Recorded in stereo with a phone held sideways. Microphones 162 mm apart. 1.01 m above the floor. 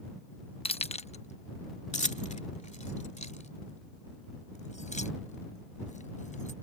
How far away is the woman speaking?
No woman speaking in this recording.